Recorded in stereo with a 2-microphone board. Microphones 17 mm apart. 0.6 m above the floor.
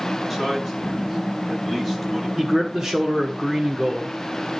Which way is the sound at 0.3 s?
25° right (ahead or behind).